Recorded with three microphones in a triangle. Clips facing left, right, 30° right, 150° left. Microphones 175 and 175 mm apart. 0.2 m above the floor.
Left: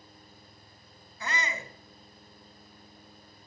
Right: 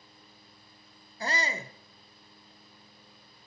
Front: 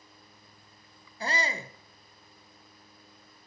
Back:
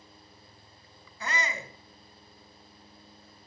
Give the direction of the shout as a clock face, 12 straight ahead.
2 o'clock.